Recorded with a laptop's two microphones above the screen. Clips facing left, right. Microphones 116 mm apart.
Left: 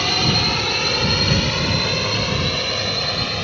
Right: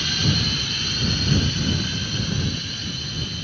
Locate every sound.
0.0 s a drone: 70° left (ahead or behind); by 3.5 s 80° left